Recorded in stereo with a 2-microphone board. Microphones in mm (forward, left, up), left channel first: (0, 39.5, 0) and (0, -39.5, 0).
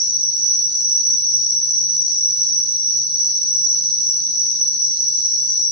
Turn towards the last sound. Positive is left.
turn(degrees=-85)